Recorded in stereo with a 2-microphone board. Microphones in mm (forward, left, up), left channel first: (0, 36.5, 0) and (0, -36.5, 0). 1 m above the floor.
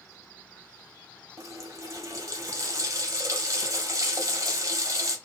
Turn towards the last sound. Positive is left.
turn(degrees=-50)  # may be behind; listen again after turning